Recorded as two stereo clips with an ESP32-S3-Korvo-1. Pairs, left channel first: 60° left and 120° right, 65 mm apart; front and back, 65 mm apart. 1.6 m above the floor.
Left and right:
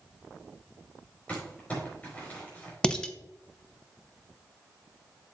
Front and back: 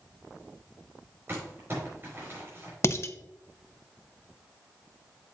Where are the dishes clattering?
10° right, 0.7 m.